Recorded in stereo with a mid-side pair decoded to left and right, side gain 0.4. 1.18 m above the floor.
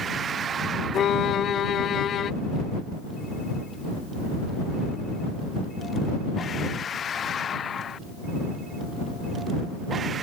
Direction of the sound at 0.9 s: 65° left.